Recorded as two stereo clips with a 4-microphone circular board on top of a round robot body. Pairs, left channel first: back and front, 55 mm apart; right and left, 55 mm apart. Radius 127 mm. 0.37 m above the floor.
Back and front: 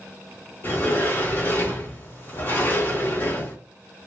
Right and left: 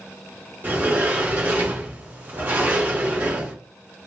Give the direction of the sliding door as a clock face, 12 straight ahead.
7 o'clock.